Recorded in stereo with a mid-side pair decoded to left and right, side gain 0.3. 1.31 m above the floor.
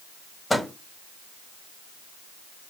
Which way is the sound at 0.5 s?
20° left.